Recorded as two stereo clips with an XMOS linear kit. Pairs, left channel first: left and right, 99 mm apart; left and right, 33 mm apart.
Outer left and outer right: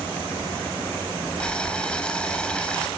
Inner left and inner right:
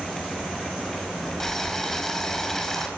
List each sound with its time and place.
1.4 s boiling: 10° left (ahead or behind), 4 m